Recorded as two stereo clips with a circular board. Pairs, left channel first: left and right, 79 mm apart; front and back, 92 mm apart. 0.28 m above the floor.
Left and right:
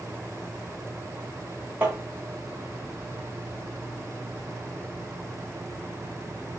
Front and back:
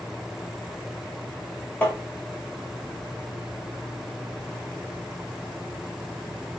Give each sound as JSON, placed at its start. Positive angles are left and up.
{"t": 1.8, "sound": "tapping", "azimuth_deg": -50, "distance_m": 1.5}